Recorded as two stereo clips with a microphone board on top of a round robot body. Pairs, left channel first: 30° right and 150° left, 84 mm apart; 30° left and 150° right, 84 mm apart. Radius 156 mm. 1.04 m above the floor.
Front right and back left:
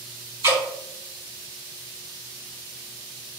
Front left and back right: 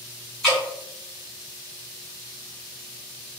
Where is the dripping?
120° left, 1.8 m.